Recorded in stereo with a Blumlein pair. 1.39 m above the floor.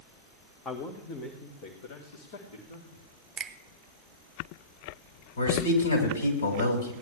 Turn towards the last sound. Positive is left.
turn(degrees=60)